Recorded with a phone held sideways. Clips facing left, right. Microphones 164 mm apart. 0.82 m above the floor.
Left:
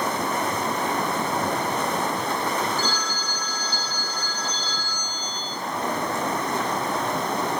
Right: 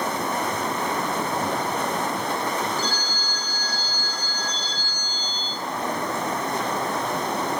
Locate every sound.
2.8 s a phone ringing: 65° right (ahead or behind), 5 m